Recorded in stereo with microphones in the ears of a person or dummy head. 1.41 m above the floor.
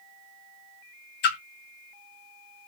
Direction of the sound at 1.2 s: 45° left (ahead or behind).